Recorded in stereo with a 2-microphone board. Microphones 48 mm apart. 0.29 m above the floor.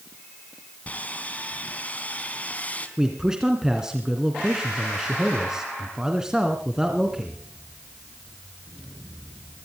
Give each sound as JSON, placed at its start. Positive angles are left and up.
{"t": 0.9, "sound": "sawing", "side_deg": 35, "distance_m": 3.0}
{"t": 3.0, "sound": "a man speaking", "side_deg": -15, "distance_m": 2.5}